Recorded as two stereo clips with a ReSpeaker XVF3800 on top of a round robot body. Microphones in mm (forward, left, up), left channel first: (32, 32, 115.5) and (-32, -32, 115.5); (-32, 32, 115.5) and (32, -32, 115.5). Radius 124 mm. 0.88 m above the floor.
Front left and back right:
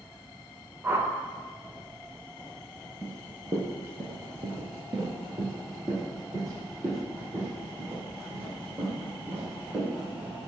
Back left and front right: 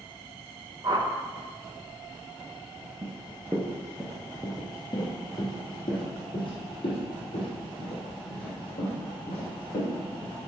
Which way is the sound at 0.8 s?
75° right.